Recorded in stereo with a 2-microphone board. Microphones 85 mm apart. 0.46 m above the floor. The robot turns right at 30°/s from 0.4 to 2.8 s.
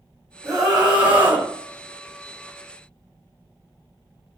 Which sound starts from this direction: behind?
A scream, at 0.4 s.